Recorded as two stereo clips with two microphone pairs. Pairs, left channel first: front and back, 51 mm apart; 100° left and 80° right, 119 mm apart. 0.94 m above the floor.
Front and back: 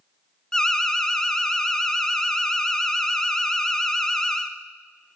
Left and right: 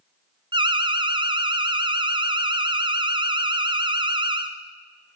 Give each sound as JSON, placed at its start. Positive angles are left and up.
{"t": 0.5, "sound": "an alarm", "azimuth_deg": -80, "distance_m": 0.6}